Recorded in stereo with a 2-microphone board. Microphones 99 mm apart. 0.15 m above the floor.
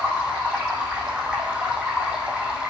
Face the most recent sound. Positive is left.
turn(degrees=-10)  # may be behind; listen again after turning